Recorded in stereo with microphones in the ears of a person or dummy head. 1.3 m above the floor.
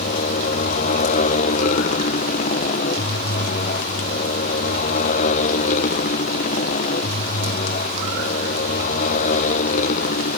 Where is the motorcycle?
40° left (ahead or behind); by 10.4 s 45° left (ahead or behind).